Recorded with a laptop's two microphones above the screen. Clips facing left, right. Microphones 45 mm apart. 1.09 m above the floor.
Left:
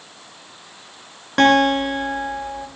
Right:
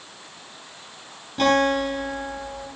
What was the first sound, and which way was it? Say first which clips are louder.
A guitar: left 5 dB; 75° left (ahead or behind).